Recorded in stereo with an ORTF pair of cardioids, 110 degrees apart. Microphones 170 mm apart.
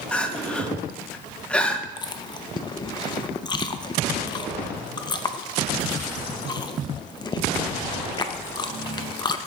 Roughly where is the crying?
Ahead.